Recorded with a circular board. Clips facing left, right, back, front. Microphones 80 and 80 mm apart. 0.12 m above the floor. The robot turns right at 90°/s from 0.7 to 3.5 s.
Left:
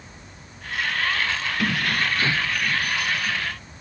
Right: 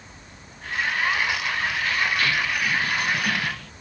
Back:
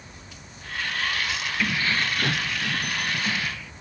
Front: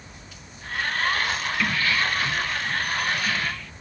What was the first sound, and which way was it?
Keys jangling, 90° left.